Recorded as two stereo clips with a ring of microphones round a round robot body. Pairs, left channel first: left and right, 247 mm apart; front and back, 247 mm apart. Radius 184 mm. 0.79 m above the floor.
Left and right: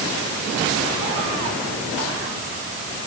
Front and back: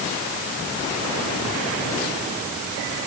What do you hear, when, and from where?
Only background noise.